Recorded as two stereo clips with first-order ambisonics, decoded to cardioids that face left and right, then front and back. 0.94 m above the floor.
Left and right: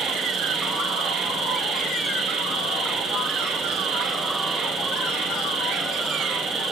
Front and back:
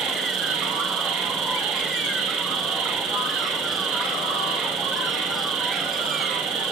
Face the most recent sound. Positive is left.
turn(degrees=-150)